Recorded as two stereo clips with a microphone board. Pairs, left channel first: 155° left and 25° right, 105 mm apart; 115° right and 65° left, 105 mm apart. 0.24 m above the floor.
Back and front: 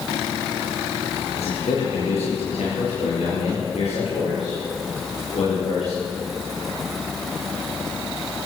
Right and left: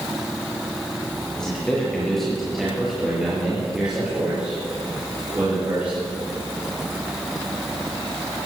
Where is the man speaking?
165° left, 5 m; by 6.0 s 140° left, 7.5 m.